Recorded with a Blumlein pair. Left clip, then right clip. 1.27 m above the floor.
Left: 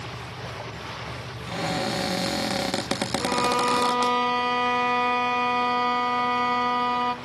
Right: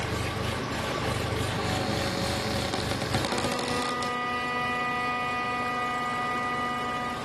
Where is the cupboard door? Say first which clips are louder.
Left 7 dB; 20° left, 0.9 m.